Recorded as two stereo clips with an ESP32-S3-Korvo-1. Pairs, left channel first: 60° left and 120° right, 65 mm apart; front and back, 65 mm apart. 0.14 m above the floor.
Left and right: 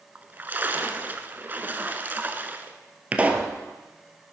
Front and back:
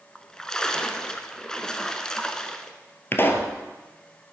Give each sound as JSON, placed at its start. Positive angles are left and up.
{"t": 0.1, "sound": "a splash", "azimuth_deg": -75, "distance_m": 0.9}
{"t": 3.1, "sound": "a pop", "azimuth_deg": -55, "distance_m": 1.2}